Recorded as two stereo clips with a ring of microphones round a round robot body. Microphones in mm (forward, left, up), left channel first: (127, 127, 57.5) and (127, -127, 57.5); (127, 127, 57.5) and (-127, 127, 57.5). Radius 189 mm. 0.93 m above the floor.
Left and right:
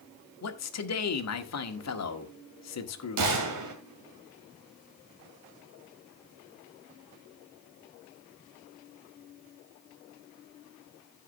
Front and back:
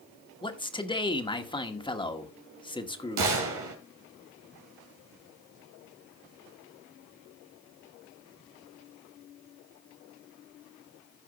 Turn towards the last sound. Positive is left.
turn(degrees=-135)